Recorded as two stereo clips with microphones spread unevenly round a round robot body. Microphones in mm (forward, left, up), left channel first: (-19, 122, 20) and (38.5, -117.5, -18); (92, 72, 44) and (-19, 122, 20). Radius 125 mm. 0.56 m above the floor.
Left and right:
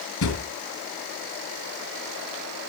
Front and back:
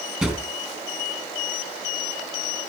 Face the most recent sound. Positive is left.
turn(degrees=75)